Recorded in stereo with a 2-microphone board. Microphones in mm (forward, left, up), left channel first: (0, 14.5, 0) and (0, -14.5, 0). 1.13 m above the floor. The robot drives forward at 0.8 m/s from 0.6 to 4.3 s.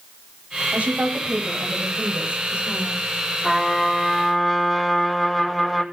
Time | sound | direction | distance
0.7 | a woman speaking | 45° right (ahead or behind) | 7.5 m
3.4 | a trumpet | 5° right (ahead or behind) | 3.5 m